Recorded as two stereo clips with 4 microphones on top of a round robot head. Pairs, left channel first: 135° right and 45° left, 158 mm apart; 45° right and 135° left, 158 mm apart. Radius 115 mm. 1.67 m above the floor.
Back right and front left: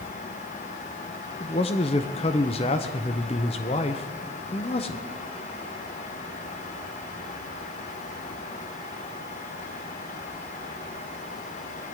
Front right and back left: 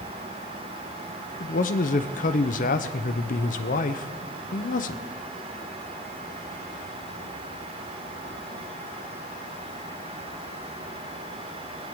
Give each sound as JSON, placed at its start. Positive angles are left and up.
{"t": 1.4, "sound": "a man speaking", "azimuth_deg": -80, "distance_m": 0.7}